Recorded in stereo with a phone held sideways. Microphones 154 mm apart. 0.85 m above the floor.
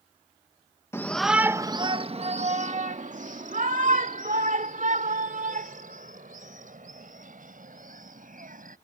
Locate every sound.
0.9 s a shout: 15° left (ahead or behind); by 8.8 s 60° right (ahead or behind)